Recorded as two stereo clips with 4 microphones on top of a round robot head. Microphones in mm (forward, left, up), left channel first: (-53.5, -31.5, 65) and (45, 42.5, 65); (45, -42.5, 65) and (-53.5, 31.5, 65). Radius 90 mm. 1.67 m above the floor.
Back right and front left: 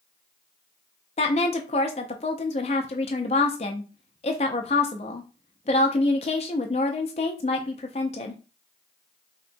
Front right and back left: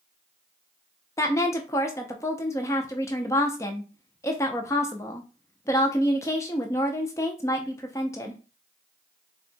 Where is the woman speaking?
105° right, 0.5 m.